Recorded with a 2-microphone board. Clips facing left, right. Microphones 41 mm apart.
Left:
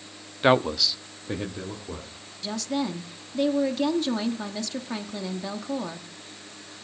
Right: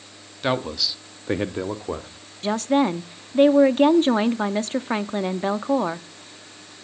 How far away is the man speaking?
About 0.9 m.